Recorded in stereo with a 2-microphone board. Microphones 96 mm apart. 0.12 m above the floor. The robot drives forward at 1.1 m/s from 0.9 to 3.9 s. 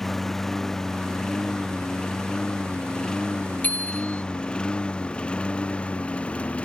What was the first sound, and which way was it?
A lawn mower, 5° left (ahead or behind).